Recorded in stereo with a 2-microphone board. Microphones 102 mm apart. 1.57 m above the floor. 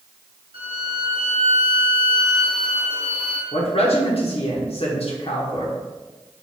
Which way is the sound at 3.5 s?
75° left (ahead or behind).